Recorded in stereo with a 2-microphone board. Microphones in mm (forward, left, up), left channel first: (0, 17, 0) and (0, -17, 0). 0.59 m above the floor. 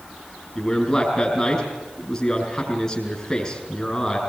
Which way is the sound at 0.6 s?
20° left (ahead or behind).